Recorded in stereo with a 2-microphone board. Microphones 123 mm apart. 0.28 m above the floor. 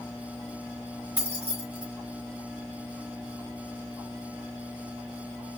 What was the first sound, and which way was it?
Keys jangling, 15° right (ahead or behind).